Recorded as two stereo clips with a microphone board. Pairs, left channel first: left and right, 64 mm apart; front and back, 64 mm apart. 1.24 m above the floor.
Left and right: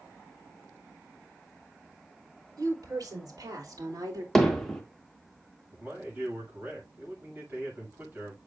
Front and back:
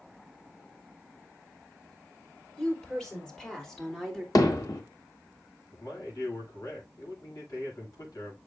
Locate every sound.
2.6 s a woman speaking: 80° right, 4.5 m; by 4.2 s 85° right, 3 m
4.3 s hammering: 5° left, 1.5 m
5.7 s a man speaking: 30° right, 6.5 m